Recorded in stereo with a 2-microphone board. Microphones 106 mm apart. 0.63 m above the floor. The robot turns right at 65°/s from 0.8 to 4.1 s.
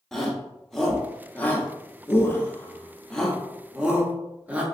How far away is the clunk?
No clunk in this recording.